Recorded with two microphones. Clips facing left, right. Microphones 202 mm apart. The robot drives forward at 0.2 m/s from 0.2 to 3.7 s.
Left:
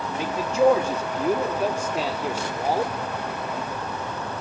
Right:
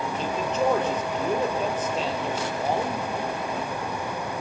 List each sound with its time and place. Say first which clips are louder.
0.2 s a man speaking: left 6 dB; 10° left (ahead or behind), 4.5 m